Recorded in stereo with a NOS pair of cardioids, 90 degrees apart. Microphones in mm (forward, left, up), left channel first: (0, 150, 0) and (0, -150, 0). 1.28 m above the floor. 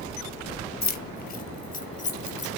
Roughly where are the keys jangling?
Ahead left.